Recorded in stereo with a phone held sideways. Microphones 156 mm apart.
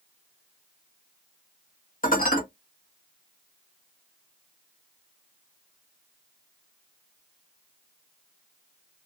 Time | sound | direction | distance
2.0 | dishes clattering | 60° left (ahead or behind) | 1.1 m